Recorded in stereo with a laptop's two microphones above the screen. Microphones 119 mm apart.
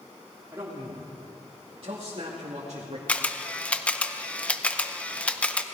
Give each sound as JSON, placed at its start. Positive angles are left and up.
{"t": 0.5, "sound": "a man speaking", "side_deg": -30, "distance_m": 3.0}
{"t": 3.1, "sound": "a camera shutter", "side_deg": 10, "distance_m": 0.7}